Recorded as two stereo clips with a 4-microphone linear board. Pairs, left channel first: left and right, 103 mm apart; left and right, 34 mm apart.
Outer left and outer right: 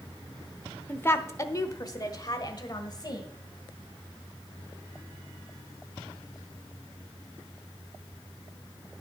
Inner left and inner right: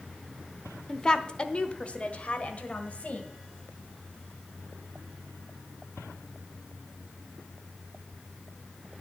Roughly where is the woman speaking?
Centre.